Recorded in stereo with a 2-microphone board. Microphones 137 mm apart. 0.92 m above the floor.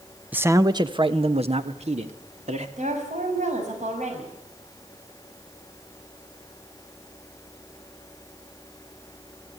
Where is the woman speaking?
65° right (ahead or behind), 6.5 m.